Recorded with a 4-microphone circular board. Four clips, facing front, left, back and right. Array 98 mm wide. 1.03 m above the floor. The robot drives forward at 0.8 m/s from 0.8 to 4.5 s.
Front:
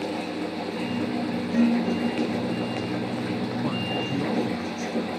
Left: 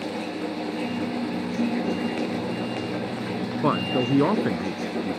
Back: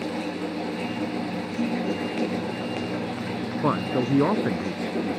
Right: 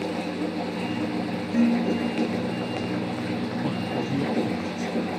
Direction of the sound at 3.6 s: 125° left.